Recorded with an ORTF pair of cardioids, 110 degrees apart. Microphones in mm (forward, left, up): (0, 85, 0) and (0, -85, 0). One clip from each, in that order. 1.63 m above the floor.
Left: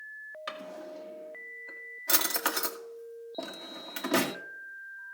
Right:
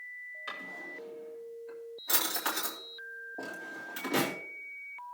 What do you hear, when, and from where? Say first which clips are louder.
0.5 s a drawer: left 2 dB; 40° left, 2.5 m